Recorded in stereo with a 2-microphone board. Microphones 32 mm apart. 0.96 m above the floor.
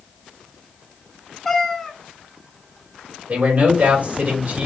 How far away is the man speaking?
About 2.5 m.